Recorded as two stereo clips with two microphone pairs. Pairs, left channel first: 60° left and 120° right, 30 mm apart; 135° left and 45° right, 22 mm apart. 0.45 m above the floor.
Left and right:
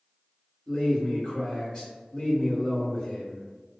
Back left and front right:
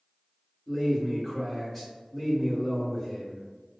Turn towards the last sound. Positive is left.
turn(degrees=15)